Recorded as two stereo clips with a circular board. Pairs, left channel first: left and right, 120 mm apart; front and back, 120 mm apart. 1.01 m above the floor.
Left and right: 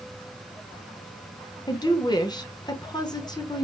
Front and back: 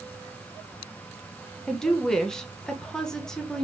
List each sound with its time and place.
1.7 s a woman speaking: 80° left, 0.8 m